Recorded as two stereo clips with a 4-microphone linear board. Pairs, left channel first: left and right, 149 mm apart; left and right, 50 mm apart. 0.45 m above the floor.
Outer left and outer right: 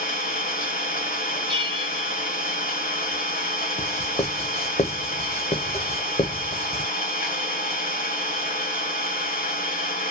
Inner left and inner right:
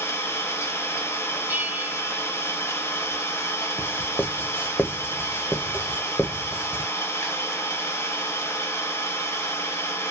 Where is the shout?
I don't hear a shout.